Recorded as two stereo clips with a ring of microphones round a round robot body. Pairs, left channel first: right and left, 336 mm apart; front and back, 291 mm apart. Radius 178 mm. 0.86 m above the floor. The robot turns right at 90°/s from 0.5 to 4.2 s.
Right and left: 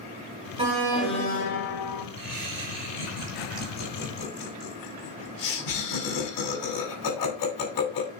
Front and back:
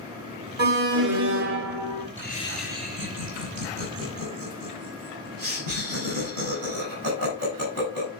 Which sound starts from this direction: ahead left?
Laughter, at 2.2 s.